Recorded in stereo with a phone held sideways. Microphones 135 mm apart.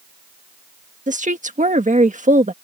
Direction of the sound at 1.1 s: 70° right (ahead or behind).